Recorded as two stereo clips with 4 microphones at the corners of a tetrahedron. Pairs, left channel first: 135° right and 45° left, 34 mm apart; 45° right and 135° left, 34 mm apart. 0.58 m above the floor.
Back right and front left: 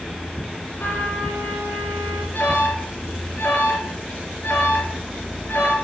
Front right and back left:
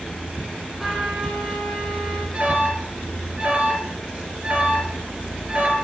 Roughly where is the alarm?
Behind.